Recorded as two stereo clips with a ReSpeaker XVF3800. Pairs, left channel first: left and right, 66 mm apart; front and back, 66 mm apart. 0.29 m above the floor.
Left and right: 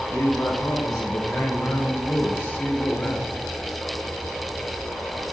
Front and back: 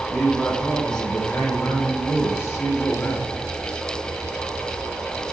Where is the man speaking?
90° left, 2.5 m; by 3.4 s 30° left, 2.5 m.